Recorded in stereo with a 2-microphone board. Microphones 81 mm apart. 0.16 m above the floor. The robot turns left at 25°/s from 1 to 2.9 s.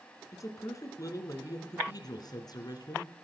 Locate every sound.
0.3 s a man speaking: 125° left, 1.8 m; by 3.1 s 75° left, 1.8 m